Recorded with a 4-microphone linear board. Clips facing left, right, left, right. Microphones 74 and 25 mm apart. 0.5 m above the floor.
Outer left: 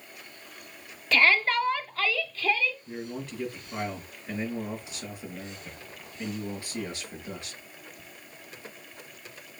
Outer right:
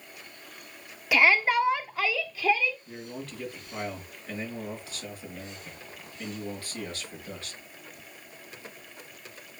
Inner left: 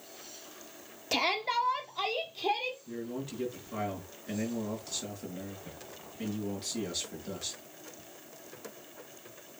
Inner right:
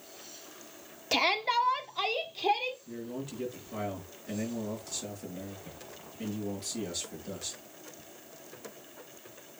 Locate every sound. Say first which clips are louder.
1.1 s a shout: outer right 1 dB, inner right 2 dB; 10° right (ahead or behind), 1.1 m
2.9 s a man speaking: outer left 3 dB, inner left 1 dB; 20° left (ahead or behind), 6 m